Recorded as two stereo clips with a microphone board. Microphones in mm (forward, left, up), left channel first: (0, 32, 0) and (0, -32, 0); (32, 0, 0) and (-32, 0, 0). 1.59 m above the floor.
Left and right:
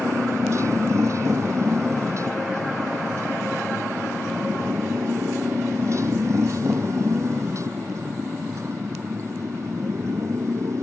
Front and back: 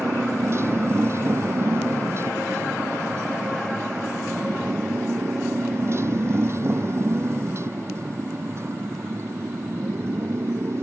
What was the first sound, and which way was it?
A motorcycle, 130° right.